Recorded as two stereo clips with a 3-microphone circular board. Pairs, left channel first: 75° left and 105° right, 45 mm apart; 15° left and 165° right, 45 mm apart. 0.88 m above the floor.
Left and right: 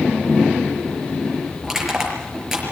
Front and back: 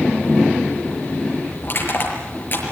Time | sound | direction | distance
1.6 | crushing | 25° right | 6 m